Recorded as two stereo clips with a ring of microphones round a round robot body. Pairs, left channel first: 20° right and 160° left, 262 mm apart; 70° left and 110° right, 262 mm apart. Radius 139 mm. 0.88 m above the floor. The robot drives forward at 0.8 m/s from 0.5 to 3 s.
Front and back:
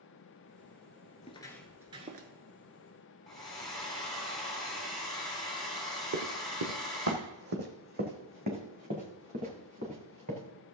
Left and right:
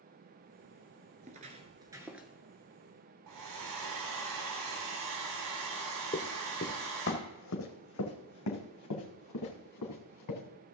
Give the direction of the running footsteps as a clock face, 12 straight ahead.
8 o'clock.